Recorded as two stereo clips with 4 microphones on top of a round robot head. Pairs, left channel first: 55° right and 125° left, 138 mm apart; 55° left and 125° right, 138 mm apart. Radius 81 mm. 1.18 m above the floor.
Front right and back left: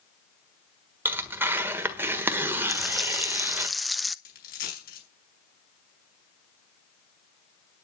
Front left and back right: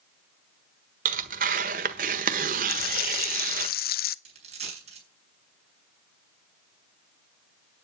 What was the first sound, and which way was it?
Tearing paper, 155° right.